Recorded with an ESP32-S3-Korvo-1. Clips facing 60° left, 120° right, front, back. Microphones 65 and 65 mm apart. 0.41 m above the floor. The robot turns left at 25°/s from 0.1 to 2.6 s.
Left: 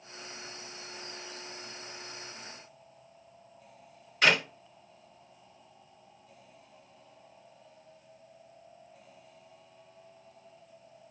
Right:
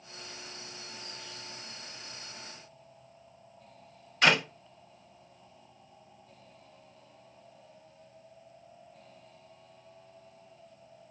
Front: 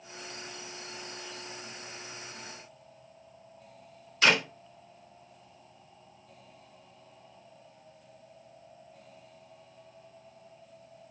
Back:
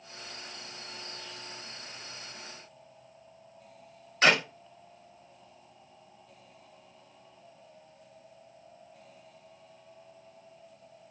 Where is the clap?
145° left, 1.9 m.